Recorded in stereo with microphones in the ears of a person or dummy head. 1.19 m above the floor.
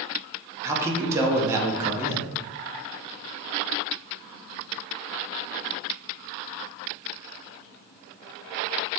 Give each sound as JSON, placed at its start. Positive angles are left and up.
{"t": 0.6, "sound": "a man speaking", "side_deg": -5, "distance_m": 0.6}